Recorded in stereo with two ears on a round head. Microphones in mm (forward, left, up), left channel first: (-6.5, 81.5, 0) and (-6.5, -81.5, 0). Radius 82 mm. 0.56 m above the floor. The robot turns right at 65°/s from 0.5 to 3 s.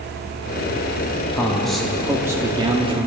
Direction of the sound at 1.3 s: 15° left (ahead or behind).